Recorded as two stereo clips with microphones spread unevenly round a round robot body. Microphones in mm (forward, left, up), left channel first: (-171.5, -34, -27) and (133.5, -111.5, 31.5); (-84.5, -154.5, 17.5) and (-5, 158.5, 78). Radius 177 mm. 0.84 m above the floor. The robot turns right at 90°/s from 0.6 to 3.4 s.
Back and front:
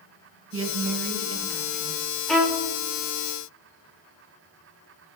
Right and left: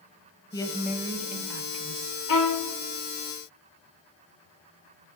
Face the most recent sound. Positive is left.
turn(degrees=-10)